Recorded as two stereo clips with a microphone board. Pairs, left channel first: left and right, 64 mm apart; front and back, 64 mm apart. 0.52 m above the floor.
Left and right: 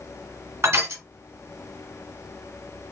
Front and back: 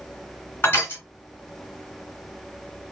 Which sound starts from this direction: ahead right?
Crushing, at 0.6 s.